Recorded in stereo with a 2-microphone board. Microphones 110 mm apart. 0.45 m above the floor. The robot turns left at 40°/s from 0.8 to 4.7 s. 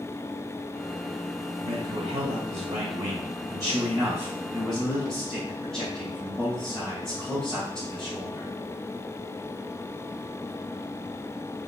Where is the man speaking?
60° right, 3 m; by 8.5 s 175° left, 3 m.